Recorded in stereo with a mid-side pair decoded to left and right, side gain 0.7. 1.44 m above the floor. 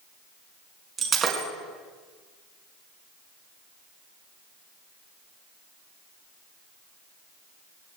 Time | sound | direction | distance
1.0 | breaking glass | 35° right | 4.5 m